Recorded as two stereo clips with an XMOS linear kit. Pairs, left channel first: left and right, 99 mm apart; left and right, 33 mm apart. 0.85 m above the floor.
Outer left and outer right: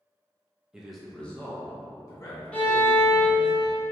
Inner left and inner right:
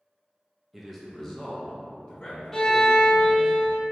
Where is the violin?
10° left (ahead or behind), 0.9 m.